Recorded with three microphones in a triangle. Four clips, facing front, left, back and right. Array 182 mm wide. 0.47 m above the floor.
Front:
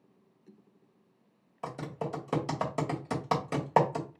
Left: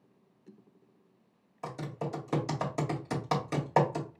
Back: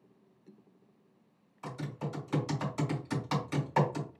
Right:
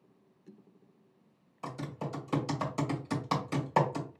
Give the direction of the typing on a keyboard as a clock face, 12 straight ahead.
11 o'clock.